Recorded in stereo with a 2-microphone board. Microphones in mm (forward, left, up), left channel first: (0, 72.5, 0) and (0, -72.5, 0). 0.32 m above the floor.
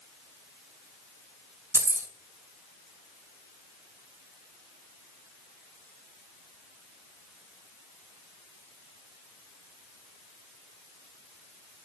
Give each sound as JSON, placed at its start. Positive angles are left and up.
{"t": 1.7, "sound": "keys jangling", "side_deg": -20, "distance_m": 1.1}